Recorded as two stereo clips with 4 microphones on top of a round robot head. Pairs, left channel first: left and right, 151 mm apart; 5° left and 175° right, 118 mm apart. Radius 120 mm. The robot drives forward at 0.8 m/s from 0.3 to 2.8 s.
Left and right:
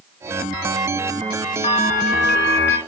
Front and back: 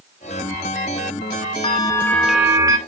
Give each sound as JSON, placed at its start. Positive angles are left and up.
{"t": 1.6, "sound": "a bell", "azimuth_deg": 45, "distance_m": 0.8}